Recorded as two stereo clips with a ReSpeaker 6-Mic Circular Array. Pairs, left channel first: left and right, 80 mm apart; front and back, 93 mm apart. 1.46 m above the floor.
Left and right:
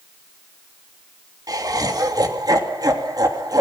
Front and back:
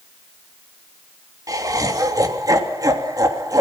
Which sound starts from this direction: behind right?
Laughter, at 1.5 s.